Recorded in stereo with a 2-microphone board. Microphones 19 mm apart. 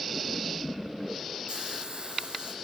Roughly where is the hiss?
Right.